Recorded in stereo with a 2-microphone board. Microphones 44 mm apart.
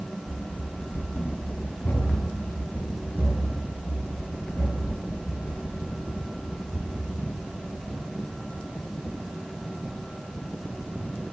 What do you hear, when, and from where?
0.3 s running footsteps: 45° left (ahead or behind), 2.5 m; by 7.8 s 40° left (ahead or behind), 8 m